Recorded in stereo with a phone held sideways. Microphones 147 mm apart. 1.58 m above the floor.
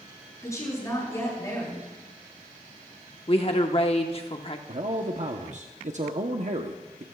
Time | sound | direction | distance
0.4 | a woman speaking | 20° left (ahead or behind) | 9 m
3.3 | a woman speaking | 40° left (ahead or behind) | 1.2 m
4.7 | a man speaking | 55° right (ahead or behind) | 0.9 m